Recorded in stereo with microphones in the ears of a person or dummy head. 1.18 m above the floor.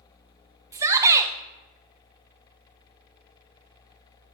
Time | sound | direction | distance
0.7 | a shout | 15° right (ahead or behind) | 0.6 m